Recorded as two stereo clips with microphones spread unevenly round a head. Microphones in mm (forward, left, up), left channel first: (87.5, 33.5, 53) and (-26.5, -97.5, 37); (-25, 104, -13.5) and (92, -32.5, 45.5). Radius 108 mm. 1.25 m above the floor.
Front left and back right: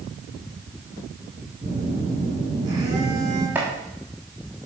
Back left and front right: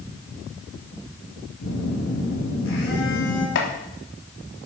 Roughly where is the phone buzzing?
Behind left.